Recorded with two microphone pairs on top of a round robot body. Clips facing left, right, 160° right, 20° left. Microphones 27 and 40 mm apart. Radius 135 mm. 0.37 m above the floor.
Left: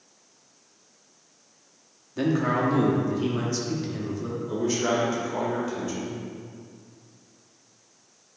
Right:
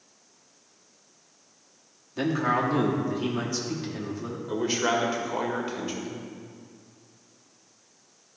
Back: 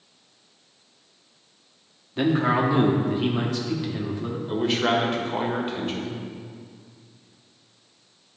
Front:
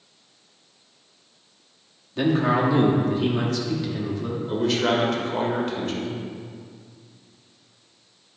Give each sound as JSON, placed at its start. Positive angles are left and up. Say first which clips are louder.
{"t": 2.2, "sound": "a man speaking", "louder": "left 1 dB, front 1 dB", "azimuth_deg": -155, "distance_m": 1.3}
{"t": 4.5, "sound": "a man speaking", "louder": "even, even", "azimuth_deg": -110, "distance_m": 1.7}